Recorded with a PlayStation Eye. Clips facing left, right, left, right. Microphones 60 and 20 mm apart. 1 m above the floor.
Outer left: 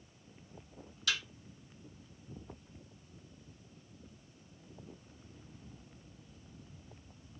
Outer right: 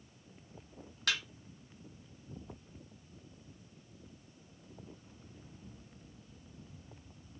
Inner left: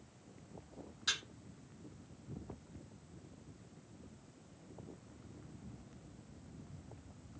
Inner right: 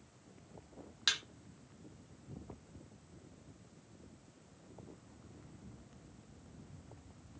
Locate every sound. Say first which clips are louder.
1.1 s a thud: outer right 1 dB, inner right 3 dB; 50° right (ahead or behind), 1.0 m